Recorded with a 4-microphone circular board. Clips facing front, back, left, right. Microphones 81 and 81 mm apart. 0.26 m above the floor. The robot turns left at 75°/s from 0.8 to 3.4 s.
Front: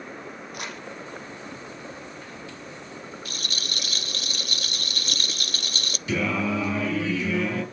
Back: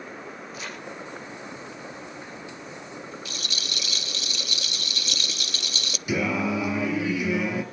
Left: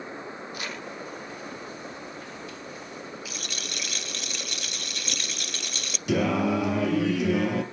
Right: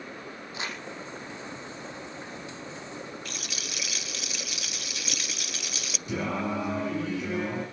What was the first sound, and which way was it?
Crumpling, 25° right.